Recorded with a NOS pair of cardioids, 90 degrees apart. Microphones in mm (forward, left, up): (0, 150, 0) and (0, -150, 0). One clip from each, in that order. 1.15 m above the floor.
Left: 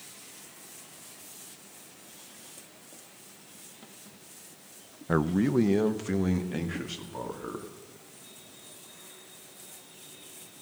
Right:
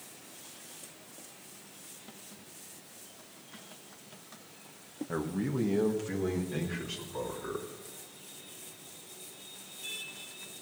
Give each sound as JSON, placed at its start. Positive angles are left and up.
{"t": 5.1, "sound": "a man speaking", "azimuth_deg": 55, "distance_m": 0.6}